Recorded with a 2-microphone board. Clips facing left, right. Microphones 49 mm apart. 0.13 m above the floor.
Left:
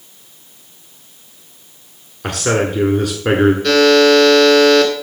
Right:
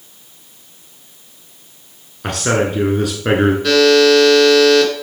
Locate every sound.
2.2 s a man speaking: centre (ahead or behind), 1.3 m
3.6 s a buzzer: 5° right (ahead or behind), 1.9 m